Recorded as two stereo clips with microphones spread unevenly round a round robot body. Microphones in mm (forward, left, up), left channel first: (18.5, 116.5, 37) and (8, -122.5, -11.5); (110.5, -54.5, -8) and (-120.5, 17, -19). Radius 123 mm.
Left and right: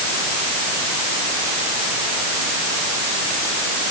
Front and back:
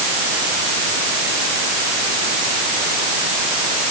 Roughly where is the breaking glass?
I don't hear breaking glass.